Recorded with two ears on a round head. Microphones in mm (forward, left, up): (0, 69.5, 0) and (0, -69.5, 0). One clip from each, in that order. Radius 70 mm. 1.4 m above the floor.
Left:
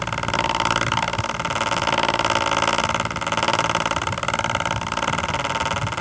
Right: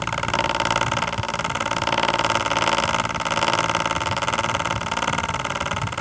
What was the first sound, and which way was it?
Only background noise.